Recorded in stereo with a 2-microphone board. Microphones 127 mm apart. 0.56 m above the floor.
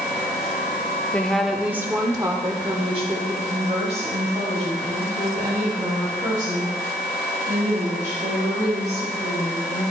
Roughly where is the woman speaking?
Centre.